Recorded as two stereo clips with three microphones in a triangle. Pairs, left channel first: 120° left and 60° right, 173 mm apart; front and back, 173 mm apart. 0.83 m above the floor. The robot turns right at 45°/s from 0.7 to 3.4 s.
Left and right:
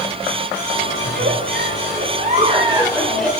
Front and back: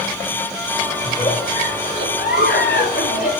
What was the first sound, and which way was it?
A giggle, 65° right.